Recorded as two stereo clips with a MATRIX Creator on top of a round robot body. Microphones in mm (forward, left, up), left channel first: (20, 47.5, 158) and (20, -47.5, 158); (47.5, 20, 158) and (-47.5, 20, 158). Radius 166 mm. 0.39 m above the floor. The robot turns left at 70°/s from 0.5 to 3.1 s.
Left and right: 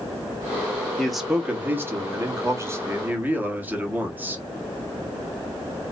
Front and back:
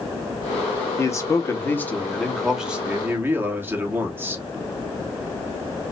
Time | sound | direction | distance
1.0 | a man speaking | 10° left | 1.3 m